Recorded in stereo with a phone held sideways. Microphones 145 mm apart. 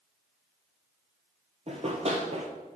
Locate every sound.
1.7 s running footsteps: 45° right (ahead or behind), 1.6 m